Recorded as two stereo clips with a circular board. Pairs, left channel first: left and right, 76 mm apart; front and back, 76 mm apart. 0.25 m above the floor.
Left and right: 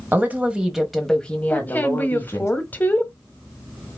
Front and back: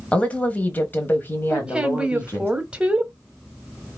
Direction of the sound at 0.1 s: 55° right.